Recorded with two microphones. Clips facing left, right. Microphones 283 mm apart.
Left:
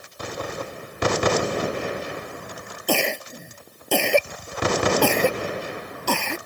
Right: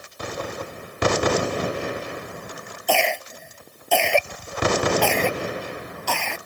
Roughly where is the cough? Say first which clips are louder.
Even; left.